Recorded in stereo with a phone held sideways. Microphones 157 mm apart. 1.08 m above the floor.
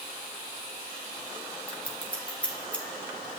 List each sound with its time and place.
1.7 s scissors: 10° left (ahead or behind), 3 m